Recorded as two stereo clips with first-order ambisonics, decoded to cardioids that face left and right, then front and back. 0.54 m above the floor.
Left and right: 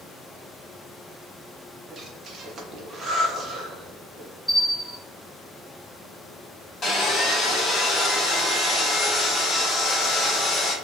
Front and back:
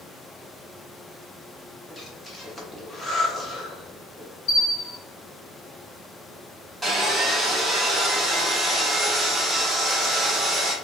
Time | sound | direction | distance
1.9 | breathing | 60° right | 0.6 m
4.5 | a bell | 5° right | 1.1 m
6.8 | sawing | 100° left | 0.8 m